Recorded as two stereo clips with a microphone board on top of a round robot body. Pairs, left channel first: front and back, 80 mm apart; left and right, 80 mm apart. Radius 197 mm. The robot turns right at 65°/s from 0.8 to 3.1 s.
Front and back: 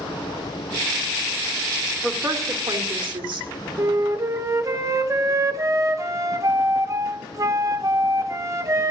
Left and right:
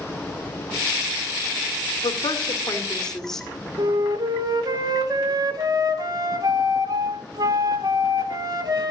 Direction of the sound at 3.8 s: 130° right.